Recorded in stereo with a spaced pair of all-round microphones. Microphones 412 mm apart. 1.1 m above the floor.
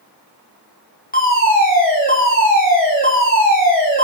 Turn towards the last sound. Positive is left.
turn(degrees=20)  # may be behind; listen again after turning